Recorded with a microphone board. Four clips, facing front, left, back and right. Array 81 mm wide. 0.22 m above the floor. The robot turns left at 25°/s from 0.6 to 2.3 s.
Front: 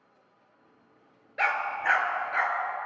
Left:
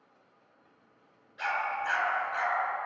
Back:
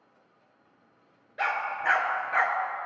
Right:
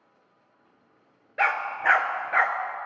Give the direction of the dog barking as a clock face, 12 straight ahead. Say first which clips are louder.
Right 6 dB, front 1 dB; 2 o'clock.